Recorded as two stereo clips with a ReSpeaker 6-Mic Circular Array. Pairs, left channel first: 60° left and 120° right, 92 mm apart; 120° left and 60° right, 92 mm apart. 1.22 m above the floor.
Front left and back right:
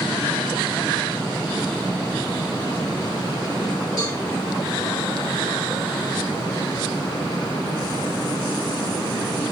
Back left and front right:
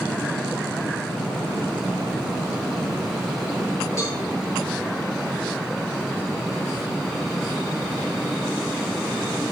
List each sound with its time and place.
4.0 s a cowbell: 70° left, 1.5 m